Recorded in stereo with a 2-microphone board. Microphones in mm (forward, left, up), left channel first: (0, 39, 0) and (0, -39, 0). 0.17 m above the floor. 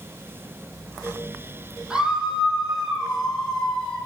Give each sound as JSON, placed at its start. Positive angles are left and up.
{"t": 1.9, "sound": "a scream", "side_deg": -10, "distance_m": 5.5}